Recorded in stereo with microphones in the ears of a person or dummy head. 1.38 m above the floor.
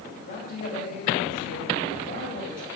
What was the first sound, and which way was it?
A man speaking, 55° left (ahead or behind).